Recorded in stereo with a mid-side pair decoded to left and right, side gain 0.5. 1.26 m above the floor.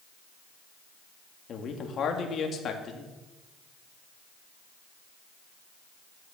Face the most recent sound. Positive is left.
turn(degrees=50)